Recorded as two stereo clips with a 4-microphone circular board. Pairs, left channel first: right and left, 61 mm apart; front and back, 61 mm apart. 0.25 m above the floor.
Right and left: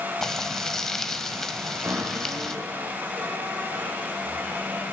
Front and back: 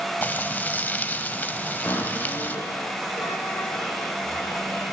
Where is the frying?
15° right, 1.0 m.